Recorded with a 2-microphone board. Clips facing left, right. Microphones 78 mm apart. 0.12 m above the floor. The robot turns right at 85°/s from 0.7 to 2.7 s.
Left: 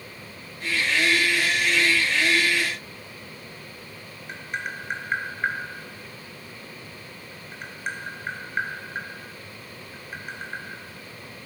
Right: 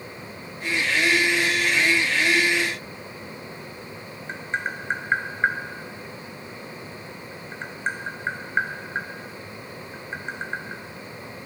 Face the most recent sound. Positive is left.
turn(degrees=-30)  # may be behind; listen again after turning